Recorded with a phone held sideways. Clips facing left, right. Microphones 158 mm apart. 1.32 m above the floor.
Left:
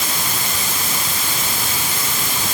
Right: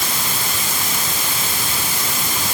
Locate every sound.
Only background noise.